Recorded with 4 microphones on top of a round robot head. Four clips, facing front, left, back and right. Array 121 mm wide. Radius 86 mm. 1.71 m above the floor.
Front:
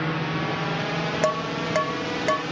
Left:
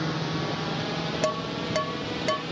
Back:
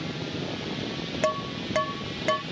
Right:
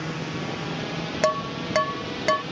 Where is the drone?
15° left; by 2.5 s 5° left.